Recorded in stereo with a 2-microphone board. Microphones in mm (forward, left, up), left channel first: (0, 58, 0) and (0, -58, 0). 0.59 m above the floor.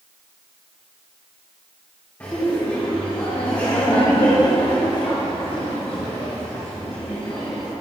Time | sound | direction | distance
2.2 | laughter | 20° left (ahead or behind) | 2 m